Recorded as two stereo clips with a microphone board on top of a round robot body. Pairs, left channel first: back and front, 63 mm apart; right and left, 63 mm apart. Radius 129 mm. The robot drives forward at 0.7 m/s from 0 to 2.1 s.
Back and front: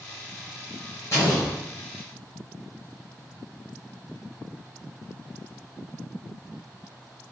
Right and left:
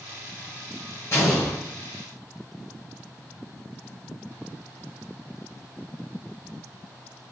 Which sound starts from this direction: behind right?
An explosion, at 1.1 s.